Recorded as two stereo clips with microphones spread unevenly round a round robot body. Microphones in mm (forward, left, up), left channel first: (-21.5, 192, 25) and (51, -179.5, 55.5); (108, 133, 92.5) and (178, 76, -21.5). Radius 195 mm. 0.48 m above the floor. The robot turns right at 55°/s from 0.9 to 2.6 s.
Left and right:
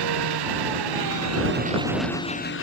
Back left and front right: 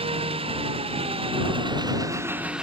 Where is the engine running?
50° right; by 2.6 s 45° left.